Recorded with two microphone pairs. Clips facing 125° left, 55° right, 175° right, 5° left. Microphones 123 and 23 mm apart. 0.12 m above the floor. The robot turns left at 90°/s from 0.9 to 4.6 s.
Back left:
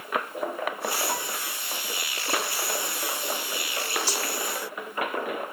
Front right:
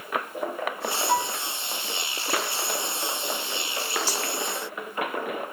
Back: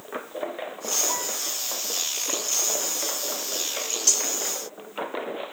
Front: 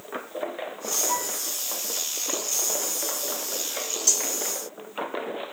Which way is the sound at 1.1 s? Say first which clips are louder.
Front right 7 dB, front 1 dB; 55° left.